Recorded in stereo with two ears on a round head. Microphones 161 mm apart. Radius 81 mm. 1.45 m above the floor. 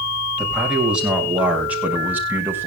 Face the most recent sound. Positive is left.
turn(degrees=-10)  # may be behind; listen again after turning